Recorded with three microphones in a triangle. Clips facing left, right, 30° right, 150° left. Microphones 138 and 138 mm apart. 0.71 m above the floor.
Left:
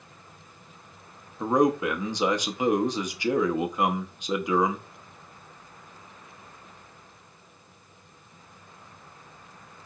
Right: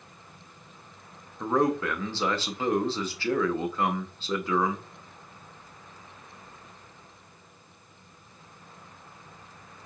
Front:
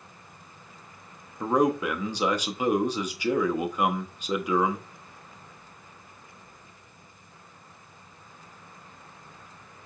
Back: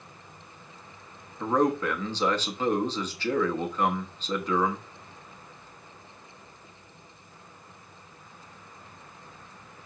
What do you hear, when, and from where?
1.4 s a man speaking: 35° left, 0.6 m